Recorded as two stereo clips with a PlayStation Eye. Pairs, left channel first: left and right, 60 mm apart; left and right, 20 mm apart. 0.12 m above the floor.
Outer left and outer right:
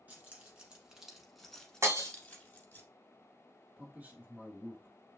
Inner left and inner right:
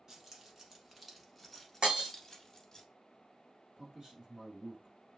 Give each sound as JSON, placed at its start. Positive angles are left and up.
{"t": 0.1, "sound": "keys jangling", "side_deg": -25, "distance_m": 1.1}
{"t": 1.8, "sound": "breaking glass", "side_deg": -55, "distance_m": 1.5}
{"t": 3.8, "sound": "a man speaking", "side_deg": -25, "distance_m": 1.5}